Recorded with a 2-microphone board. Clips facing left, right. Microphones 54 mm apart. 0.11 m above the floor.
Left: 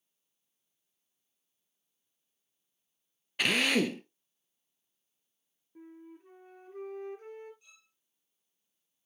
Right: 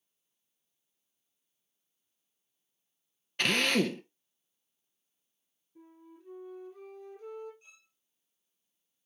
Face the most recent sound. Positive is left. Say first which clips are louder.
# right 2 dB
turn(degrees=-30)  # may be behind; listen again after turning